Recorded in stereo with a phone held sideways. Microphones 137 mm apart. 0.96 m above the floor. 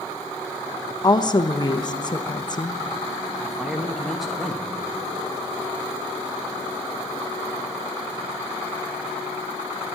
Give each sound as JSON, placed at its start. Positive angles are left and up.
{"t": 1.0, "sound": "a woman speaking", "side_deg": 30, "distance_m": 0.9}
{"t": 3.4, "sound": "a man speaking", "side_deg": 0, "distance_m": 1.5}